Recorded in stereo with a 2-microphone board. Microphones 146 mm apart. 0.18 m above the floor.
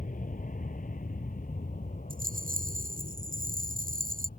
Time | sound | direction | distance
0.0 | an aircraft | 65° left (ahead or behind) | ?
2.1 | a rattle | 75° right (ahead or behind) | ?